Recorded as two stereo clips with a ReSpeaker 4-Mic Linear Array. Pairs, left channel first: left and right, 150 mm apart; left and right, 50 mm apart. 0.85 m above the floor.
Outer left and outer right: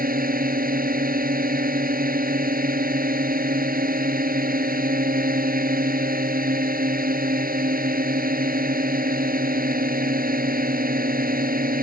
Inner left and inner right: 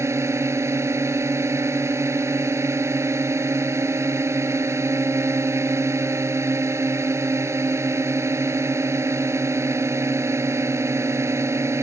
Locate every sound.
0.0 s a drone: 70° right (ahead or behind)